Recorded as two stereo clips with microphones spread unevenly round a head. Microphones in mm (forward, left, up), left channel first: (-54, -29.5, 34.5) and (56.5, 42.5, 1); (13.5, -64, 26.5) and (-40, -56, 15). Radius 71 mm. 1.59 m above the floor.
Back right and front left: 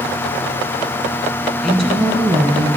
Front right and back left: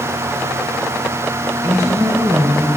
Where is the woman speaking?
135° left, 2 m; by 2.7 s 95° left, 1.0 m.